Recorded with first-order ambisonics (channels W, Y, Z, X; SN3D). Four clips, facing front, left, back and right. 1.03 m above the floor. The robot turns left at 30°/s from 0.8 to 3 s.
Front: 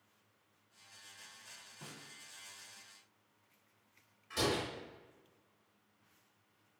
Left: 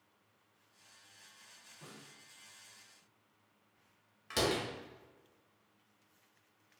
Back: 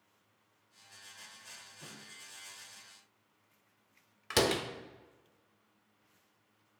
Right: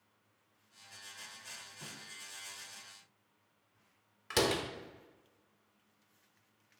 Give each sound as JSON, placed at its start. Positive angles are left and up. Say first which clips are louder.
{"t": 1.8, "sound": "a snare drum", "louder": "right 6 dB, front 1 dB", "azimuth_deg": -40, "distance_m": 0.8}
{"t": 4.3, "sound": "a door slam", "louder": "right 2 dB, back 5 dB", "azimuth_deg": -165, "distance_m": 0.5}